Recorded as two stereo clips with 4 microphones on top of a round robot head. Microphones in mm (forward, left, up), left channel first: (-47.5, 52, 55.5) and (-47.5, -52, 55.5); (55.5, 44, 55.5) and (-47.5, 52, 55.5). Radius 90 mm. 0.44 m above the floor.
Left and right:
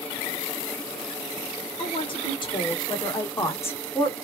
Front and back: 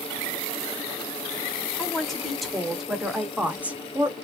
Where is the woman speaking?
80° left, 2.5 m; by 4.2 s 160° left, 1.4 m.